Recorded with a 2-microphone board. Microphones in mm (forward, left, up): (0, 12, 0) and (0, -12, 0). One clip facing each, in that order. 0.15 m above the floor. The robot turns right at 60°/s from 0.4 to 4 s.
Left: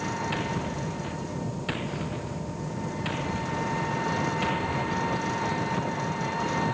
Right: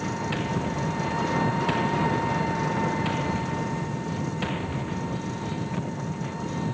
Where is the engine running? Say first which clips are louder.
Right 1 dB; 170° left; by 6.7 s 30° left.